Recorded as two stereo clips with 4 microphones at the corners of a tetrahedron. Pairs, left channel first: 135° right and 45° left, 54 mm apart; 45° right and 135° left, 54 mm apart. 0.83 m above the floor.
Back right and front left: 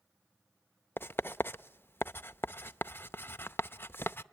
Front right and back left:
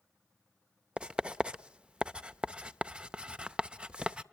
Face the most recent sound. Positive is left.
turn(degrees=-160)